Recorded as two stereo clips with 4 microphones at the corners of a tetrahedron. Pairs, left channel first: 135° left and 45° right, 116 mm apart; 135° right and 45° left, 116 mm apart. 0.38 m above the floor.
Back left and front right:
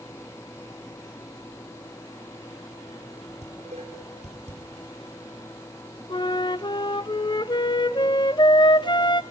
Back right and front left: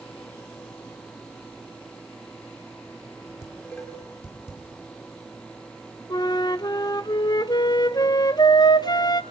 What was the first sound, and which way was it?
Dishes clattering, 65° right.